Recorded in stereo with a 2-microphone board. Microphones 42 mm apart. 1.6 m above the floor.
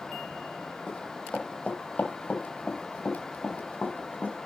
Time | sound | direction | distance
0.9 | running footsteps | 15° left (ahead or behind) | 2 m